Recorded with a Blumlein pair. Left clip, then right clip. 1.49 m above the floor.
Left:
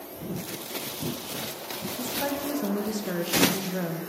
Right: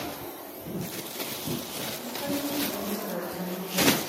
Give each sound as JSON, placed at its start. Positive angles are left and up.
{"t": 2.0, "sound": "a woman speaking", "azimuth_deg": 30, "distance_m": 2.5}